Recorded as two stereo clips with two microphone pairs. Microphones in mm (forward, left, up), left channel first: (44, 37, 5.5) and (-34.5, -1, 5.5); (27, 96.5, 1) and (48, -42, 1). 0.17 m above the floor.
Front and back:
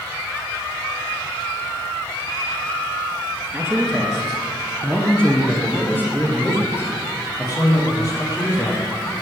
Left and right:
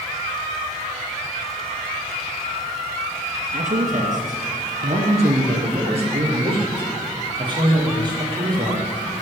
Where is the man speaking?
75° right, 3 m; by 9.2 s 20° right, 6.5 m.